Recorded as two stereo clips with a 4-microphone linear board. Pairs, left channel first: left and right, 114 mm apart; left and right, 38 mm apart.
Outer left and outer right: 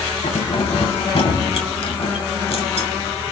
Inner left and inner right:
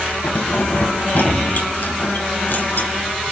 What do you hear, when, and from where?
0.2 s keys jangling: 60° left (ahead or behind), 2.5 m